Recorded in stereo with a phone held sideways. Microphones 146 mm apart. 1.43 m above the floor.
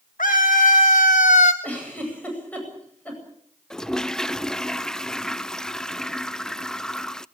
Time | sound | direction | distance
0.2 | a scream | 70° left (ahead or behind) | 1.6 m
1.6 | a giggle | 10° left (ahead or behind) | 9 m
3.7 | a toilet flushing | 5° left (ahead or behind) | 0.5 m